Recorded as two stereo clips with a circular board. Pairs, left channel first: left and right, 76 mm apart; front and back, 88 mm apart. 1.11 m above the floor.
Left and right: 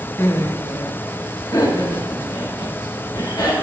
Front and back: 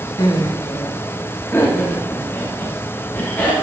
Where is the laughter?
35° left, 1.1 m; by 3.6 s 70° left, 4 m.